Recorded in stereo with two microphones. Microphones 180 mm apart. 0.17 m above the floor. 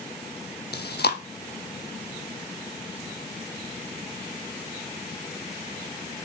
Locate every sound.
0.7 s chewing: 65° left (ahead or behind), 1.0 m